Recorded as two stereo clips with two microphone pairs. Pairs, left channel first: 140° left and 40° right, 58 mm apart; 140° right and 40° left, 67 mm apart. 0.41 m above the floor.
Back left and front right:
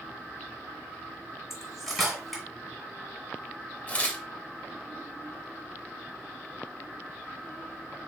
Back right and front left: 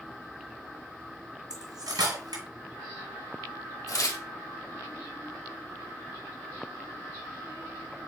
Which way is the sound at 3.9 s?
160° right.